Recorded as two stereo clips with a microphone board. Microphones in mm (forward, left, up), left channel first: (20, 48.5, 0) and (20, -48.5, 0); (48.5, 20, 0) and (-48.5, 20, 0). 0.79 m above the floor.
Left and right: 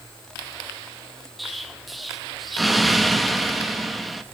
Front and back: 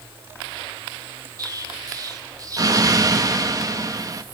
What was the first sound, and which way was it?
An explosion, straight behind.